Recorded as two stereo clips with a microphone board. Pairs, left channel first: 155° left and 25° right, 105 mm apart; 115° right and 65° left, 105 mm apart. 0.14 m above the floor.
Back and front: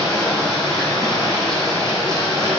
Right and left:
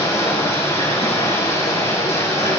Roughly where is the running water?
Behind right.